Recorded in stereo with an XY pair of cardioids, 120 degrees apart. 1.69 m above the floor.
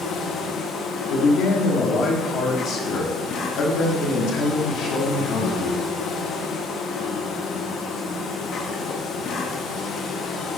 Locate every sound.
0.0 s an insect: 60° left, 0.8 m
1.1 s a man speaking: 60° left, 1.4 m